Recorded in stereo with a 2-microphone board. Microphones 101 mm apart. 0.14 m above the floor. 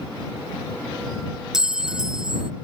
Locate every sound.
1.5 s a clink: 5° right (ahead or behind)